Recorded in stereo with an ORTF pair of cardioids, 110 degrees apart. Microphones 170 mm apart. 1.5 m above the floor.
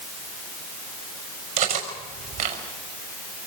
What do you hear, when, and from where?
1.6 s cutlery clinking: 65° right, 5.5 m